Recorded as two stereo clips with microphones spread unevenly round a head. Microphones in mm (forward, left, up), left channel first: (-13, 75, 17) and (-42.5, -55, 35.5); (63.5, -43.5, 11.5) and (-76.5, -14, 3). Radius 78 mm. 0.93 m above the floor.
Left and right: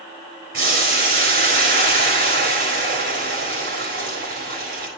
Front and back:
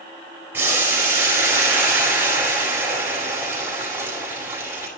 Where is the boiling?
115° right, 7.5 m.